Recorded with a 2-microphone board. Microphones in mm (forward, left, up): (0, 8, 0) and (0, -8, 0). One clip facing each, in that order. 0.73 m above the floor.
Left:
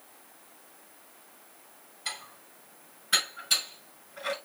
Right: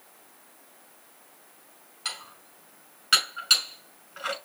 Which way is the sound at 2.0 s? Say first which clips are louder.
Right 2 dB; 85° right.